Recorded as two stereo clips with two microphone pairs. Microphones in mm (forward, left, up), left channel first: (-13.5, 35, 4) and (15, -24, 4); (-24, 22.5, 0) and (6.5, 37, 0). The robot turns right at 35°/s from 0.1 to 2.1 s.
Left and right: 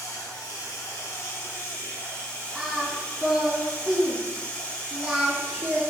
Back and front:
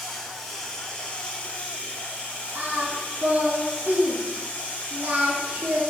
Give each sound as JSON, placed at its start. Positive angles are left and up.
{"t": 0.0, "sound": "running water", "azimuth_deg": 115, "distance_m": 1.0}
{"t": 2.5, "sound": "singing", "azimuth_deg": 20, "distance_m": 0.6}